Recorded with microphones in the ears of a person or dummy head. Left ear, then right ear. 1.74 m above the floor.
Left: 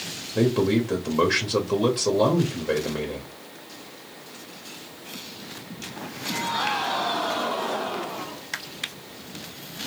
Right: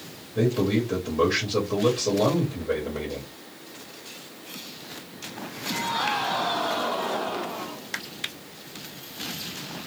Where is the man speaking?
45° left (ahead or behind), 0.9 m.